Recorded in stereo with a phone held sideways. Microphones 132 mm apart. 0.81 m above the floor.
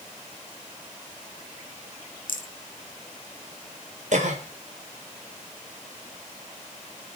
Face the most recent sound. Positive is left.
turn(degrees=-65)  # may be behind; listen again after turning